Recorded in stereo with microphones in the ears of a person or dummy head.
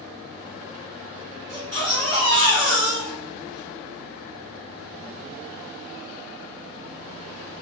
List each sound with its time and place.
1.5 s a baby crying: 5° left (ahead or behind), 1.8 m